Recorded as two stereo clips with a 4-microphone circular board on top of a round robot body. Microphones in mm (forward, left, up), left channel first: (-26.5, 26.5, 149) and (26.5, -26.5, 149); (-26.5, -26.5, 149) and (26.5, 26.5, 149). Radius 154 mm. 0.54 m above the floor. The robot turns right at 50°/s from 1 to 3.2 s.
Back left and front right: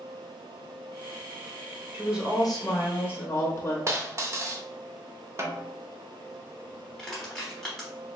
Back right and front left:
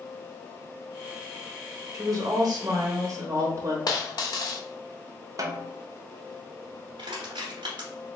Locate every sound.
1.9 s a woman speaking: 15° left, 1.1 m; by 3.8 s 80° left, 1.1 m
3.9 s a dropped coin: 100° right, 0.6 m
5.4 s a snare drum: 10° left, 0.7 m
7.0 s crushing: 55° left, 0.8 m